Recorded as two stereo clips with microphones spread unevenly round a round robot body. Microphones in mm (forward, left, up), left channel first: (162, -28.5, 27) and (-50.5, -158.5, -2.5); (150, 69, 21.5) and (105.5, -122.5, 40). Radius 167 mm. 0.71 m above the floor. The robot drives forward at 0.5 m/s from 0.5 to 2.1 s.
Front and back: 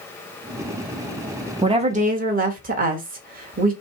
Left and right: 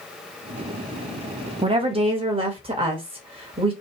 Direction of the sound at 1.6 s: 140° right.